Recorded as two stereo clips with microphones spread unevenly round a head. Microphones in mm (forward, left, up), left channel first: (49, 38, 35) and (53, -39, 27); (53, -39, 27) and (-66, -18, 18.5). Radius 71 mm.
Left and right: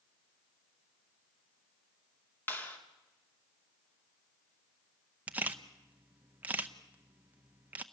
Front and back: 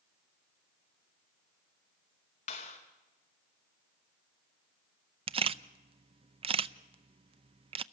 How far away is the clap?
About 2.5 m.